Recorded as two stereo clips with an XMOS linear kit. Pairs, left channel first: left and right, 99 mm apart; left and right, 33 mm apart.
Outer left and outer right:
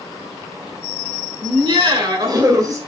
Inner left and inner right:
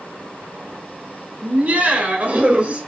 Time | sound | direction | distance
1.4 | laughter | 55° right (ahead or behind) | 2.5 m